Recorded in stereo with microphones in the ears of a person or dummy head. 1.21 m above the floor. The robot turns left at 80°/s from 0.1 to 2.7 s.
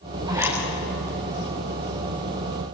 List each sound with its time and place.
0.3 s a zipper: 25° right (ahead or behind), 9 m; by 0.6 s centre (ahead or behind), 9 m